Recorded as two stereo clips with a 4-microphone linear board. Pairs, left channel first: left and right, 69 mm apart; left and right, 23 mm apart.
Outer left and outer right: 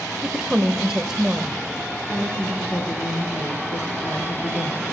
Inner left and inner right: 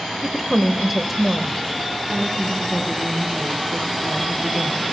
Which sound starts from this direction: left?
A woman speaking, at 2.1 s.